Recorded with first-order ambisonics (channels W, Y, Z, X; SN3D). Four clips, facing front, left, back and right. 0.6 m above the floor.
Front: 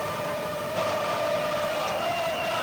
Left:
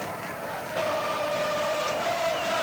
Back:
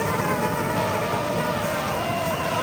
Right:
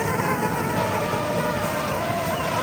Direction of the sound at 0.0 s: 130° right.